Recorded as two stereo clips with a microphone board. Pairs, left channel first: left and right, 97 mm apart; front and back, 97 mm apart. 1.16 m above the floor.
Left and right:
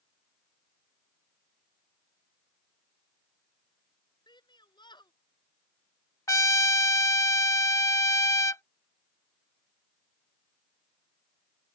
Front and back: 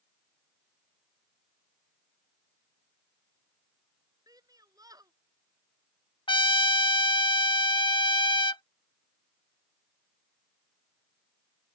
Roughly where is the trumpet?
Ahead left.